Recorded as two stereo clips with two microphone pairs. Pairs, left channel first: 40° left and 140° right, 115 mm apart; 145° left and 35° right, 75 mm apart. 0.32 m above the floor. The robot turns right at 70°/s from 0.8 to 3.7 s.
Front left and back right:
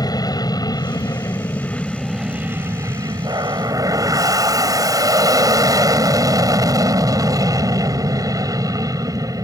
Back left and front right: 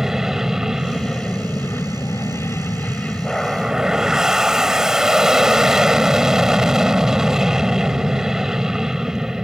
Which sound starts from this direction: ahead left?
An aircraft, at 0.0 s.